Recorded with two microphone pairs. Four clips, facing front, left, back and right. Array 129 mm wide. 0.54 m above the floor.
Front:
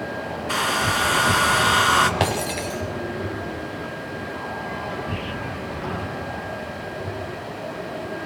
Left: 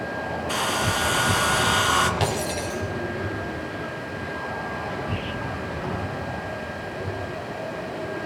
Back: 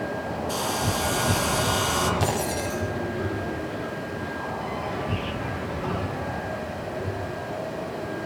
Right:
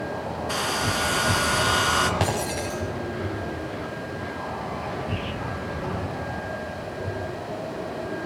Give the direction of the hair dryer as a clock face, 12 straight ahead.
12 o'clock.